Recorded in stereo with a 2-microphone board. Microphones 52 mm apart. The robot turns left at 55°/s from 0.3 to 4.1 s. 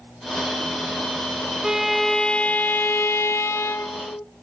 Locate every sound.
1.6 s a violin: 165° right, 0.6 m; by 4.2 s 60° left, 0.6 m